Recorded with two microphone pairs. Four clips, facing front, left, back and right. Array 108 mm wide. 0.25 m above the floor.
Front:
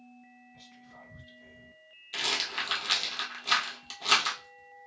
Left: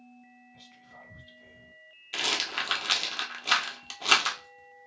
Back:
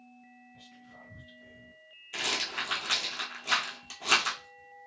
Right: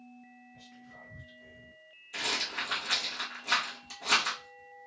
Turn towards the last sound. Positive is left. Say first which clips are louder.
# left 3 dB, even
turn(degrees=95)